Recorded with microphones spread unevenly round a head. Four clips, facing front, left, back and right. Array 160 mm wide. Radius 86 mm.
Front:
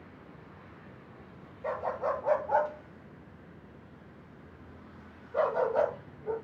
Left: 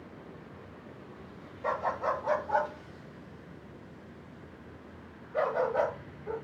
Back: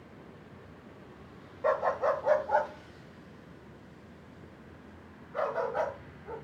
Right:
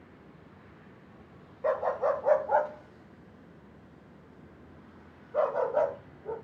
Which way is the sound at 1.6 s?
125° right.